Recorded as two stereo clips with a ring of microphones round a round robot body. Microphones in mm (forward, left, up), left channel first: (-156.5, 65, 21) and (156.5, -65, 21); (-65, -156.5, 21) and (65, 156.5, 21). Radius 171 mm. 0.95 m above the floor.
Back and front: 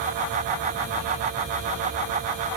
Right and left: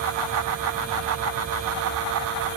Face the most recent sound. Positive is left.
No sound to turn to.